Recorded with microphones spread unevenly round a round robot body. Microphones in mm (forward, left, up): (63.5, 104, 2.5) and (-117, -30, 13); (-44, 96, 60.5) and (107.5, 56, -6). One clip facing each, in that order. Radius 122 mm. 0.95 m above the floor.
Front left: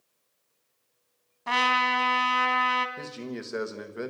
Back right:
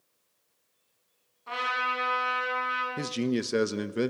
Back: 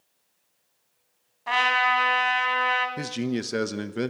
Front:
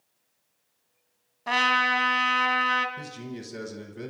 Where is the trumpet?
30° left, 2.5 m.